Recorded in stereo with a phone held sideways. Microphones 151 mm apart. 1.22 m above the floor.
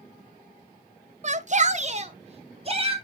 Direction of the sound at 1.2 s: 45° right (ahead or behind).